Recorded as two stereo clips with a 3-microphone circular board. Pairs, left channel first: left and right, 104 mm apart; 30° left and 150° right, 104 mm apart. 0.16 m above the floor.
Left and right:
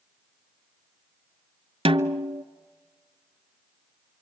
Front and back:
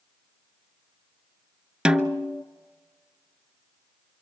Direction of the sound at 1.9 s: 65° right.